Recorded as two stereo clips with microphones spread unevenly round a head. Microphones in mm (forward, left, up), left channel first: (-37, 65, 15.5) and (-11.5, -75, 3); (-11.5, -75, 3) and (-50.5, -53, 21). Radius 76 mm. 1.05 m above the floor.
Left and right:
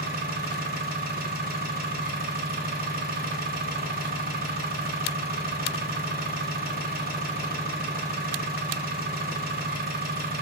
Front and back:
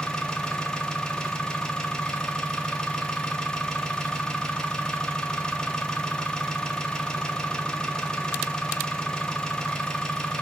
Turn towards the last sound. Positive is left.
turn(degrees=-95)